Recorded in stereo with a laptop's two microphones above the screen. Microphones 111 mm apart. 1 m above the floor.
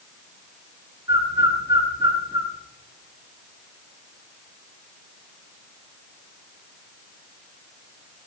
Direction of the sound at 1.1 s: 35° right (ahead or behind).